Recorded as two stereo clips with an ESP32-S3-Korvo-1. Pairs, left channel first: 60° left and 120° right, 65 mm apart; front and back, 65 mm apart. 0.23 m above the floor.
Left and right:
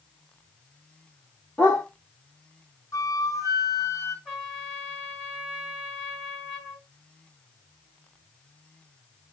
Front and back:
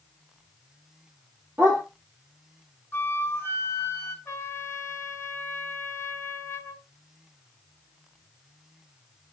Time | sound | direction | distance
1.6 | a dog barking | 125° left | 1.6 m
2.9 | a flute | 50° left | 0.9 m
4.2 | a trumpet | 45° right | 1.6 m